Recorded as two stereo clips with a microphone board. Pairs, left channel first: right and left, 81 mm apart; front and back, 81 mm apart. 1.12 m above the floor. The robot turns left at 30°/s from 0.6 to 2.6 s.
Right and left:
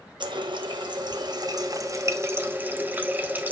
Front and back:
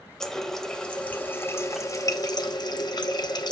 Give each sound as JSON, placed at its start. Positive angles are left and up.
{"t": 0.2, "sound": "a running tap", "azimuth_deg": 85, "distance_m": 0.9}